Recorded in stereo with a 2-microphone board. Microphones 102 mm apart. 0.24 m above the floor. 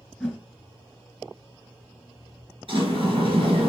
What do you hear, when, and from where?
0.2 s a whoosh: 5° left (ahead or behind), 1.3 m
2.7 s a sliding door: 55° right (ahead or behind), 2.5 m